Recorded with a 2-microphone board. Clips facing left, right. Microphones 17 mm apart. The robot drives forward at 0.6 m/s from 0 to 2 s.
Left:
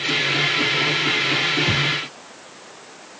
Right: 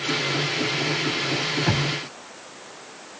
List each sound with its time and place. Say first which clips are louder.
1.7 s knocking: left 4 dB; 70° right (ahead or behind)